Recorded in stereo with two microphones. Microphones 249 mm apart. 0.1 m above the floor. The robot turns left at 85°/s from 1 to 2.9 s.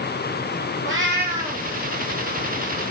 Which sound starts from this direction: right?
A cat meowing, at 0.8 s.